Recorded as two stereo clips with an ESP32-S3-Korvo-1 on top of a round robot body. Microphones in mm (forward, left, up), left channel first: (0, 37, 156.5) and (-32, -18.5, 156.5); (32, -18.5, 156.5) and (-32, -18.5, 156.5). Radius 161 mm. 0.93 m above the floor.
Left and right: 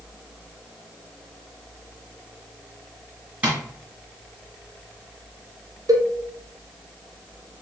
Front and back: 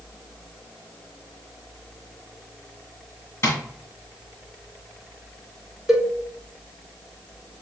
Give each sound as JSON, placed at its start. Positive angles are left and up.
{"t": 3.4, "sound": "tapping", "azimuth_deg": -50, "distance_m": 1.9}
{"t": 5.9, "sound": "a cowbell", "azimuth_deg": -95, "distance_m": 1.3}